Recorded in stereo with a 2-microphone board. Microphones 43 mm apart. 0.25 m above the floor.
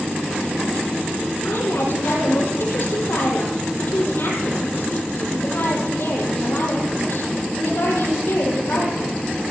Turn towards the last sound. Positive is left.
turn(degrees=75)  # may be behind; listen again after turning